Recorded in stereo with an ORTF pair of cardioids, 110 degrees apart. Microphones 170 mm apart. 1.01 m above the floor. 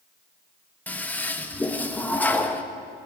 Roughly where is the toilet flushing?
Ahead.